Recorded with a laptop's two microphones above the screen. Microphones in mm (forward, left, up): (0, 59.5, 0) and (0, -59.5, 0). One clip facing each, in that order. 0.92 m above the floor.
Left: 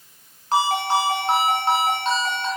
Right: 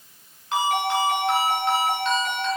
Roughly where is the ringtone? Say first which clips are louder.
Left 2 dB; left.